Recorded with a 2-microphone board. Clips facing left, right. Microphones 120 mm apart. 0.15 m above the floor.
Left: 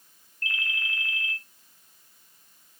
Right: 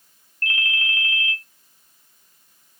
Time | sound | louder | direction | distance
0.4 | a ringtone | right 6 dB | 65° right (ahead or behind) | 1.8 m